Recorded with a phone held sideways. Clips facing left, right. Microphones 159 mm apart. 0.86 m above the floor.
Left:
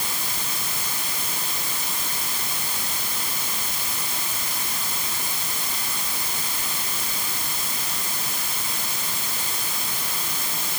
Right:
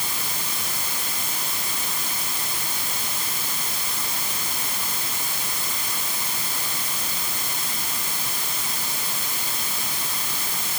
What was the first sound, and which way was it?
Only background noise.